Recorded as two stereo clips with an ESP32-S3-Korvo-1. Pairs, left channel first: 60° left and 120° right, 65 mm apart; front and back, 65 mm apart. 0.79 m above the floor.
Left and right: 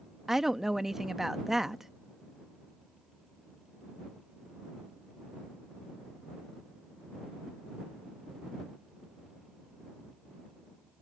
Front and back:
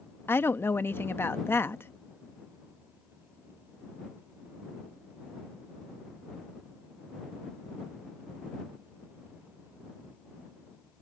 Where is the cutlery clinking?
No cutlery clinking in this recording.